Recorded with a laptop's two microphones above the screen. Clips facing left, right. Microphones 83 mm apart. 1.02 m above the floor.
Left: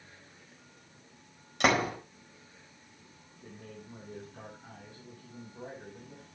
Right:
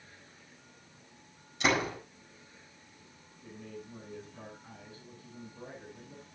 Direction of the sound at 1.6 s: 75° left (ahead or behind).